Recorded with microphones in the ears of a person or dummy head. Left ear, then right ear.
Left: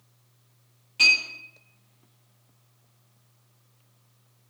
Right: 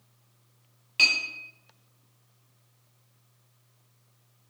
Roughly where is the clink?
Right.